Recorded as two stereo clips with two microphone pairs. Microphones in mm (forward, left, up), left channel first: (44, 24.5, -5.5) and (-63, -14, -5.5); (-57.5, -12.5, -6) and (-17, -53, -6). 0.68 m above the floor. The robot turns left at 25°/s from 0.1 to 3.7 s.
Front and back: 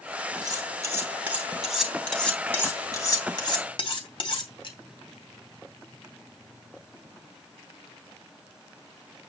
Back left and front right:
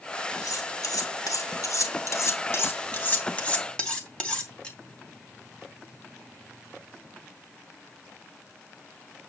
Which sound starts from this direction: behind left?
Cutlery clinking, at 0.4 s.